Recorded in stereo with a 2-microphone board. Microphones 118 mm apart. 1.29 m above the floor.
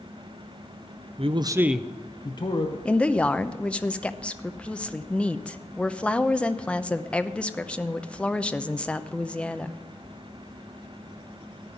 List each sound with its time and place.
1.2 s a man speaking: 55° right (ahead or behind), 0.6 m; by 2.8 s 50° left (ahead or behind), 1.1 m
2.9 s a woman speaking: 10° left (ahead or behind), 0.6 m